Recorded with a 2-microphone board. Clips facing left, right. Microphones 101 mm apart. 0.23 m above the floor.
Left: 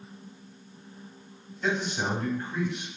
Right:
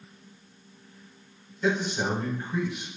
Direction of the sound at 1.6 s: 5° right (ahead or behind).